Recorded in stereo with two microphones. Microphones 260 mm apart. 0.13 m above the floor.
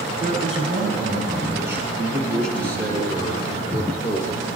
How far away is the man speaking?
About 1.8 m.